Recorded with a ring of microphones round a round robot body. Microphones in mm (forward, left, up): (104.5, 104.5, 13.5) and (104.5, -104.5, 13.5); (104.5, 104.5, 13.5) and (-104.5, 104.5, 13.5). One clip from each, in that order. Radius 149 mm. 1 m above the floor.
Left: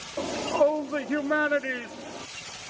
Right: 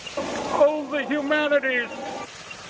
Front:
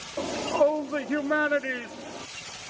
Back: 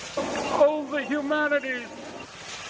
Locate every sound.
0.2 s a shout: 140° right; by 2.3 s 85° right